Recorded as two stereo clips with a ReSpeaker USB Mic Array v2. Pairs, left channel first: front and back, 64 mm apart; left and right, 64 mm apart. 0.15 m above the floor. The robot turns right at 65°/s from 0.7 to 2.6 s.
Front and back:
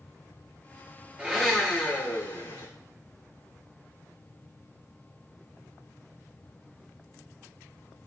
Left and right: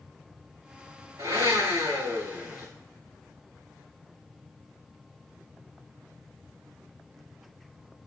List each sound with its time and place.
1.2 s a blender: 110° right, 5 m; by 2.7 s 20° right, 5 m